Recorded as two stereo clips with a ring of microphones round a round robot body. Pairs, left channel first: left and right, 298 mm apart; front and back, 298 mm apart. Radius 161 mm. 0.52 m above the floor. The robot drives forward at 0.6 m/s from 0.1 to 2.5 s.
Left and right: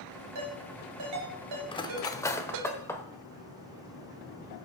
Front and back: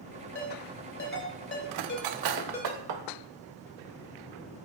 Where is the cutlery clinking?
165° left, 0.5 m; by 3.0 s 170° left, 1.0 m.